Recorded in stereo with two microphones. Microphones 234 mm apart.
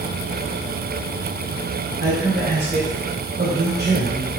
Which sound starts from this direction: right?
A man speaking, at 2.0 s.